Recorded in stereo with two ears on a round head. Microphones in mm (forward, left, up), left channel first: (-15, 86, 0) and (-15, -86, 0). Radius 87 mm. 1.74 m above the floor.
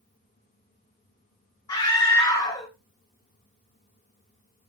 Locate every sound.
1.7 s a scream: 20° left (ahead or behind), 1.2 m